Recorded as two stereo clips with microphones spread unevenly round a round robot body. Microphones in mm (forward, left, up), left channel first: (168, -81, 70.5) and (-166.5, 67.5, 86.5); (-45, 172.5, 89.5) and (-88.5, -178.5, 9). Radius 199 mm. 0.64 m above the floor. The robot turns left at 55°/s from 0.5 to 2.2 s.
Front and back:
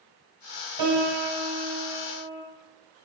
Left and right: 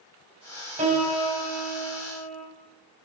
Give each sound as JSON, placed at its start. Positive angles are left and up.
{"t": 0.8, "sound": "a piano", "azimuth_deg": -170, "distance_m": 3.5}